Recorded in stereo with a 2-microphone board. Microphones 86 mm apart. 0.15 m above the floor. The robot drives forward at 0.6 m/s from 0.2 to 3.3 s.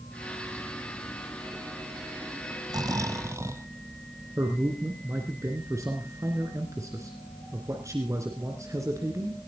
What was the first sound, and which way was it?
Snoring, 50° right (ahead or behind).